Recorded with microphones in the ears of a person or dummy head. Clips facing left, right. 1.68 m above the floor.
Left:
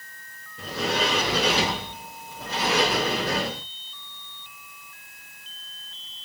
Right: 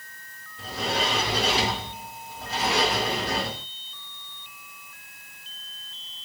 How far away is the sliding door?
About 1.0 m.